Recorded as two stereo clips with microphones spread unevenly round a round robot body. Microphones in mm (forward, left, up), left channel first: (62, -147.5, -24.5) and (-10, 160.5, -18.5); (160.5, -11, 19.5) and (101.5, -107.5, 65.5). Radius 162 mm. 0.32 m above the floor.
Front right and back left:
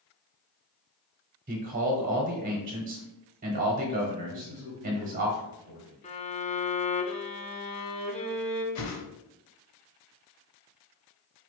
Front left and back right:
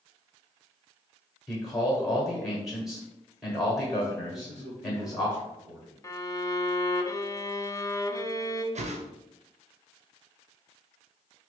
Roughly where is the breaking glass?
No breaking glass in this recording.